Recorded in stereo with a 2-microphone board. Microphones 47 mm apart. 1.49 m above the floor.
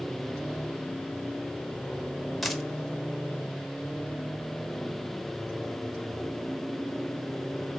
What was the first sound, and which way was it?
A dropped coin, centre (ahead or behind).